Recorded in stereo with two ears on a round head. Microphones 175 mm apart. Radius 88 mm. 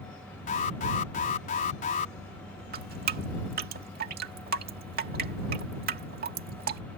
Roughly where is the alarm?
Left.